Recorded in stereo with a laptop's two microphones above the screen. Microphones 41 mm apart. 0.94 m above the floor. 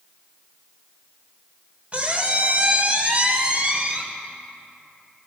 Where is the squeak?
35° right (ahead or behind), 1.8 m.